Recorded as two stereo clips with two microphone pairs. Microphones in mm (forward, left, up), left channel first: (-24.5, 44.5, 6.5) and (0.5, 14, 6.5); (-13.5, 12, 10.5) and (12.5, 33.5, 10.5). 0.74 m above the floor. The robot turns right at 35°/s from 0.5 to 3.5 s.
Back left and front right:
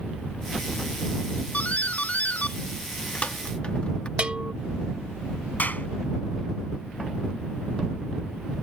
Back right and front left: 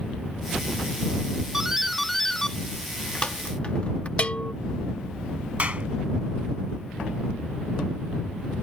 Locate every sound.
1.5 s a doorbell: 110° left; by 4.1 s straight behind
4.2 s a bell: 105° right
5.6 s a clap: 85° left